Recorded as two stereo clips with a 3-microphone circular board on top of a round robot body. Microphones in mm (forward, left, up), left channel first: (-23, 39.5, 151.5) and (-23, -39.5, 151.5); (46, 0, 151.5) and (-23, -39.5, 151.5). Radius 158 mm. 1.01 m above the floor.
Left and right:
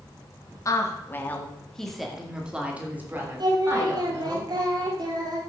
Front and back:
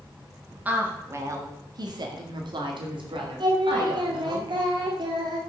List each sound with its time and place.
0.7 s a woman speaking: 140° left, 2 m; by 4.4 s 145° right, 4.5 m
3.4 s singing: 125° right, 2.5 m